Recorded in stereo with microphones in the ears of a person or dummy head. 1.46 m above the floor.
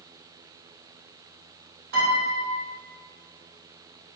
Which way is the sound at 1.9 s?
65° right (ahead or behind).